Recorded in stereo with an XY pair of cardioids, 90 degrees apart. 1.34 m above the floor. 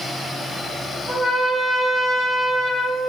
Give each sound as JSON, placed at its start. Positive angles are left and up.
{"t": 1.1, "sound": "a trumpet", "azimuth_deg": -30, "distance_m": 1.3}